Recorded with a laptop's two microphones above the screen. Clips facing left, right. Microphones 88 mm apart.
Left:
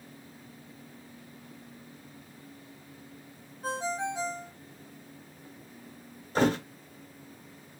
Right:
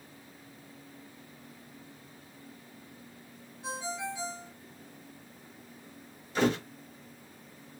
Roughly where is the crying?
No crying in this recording.